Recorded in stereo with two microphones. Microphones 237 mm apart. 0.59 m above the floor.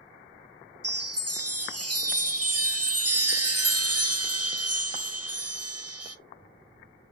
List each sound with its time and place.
0.8 s a chime: 70° right (ahead or behind), 0.6 m